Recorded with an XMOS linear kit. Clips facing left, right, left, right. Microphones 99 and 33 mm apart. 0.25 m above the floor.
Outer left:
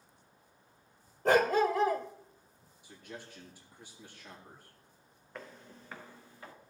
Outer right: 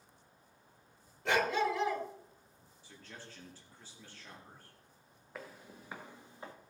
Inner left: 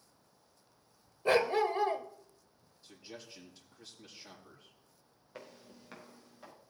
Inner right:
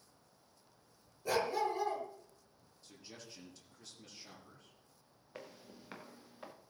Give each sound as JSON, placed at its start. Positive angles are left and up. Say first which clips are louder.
{"t": 1.2, "sound": "a dog barking", "louder": "outer left 5 dB, inner left 6 dB", "side_deg": 45, "distance_m": 1.2}
{"t": 2.8, "sound": "a man speaking", "louder": "outer left 5 dB, inner left 4 dB", "side_deg": 15, "distance_m": 4.5}
{"t": 5.3, "sound": "footsteps", "louder": "outer left 1 dB, even", "side_deg": -5, "distance_m": 2.0}